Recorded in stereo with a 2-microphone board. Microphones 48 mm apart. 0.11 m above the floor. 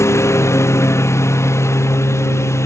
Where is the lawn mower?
75° left (ahead or behind).